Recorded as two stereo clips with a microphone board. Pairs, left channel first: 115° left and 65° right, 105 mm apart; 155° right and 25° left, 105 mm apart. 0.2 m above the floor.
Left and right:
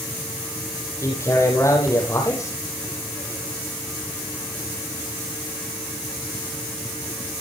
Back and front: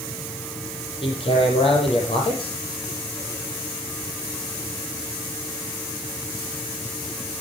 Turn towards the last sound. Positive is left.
turn(degrees=175)